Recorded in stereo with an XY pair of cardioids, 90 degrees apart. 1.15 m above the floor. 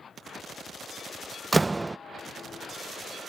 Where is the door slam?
20° right.